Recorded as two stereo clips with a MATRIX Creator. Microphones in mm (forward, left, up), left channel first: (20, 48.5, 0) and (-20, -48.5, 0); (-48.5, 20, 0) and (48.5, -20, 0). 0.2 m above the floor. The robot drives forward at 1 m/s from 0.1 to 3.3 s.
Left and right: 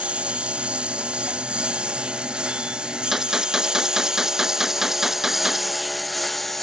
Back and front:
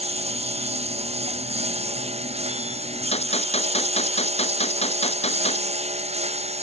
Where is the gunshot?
160° left.